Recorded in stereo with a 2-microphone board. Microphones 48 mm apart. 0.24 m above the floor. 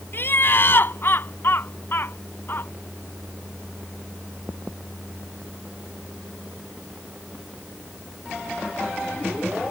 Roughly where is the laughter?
Left.